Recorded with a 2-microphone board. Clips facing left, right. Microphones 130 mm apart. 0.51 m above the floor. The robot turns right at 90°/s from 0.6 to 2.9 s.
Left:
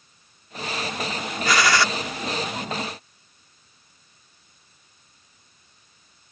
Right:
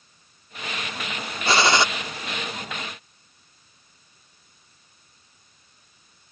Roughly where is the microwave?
No microwave in this recording.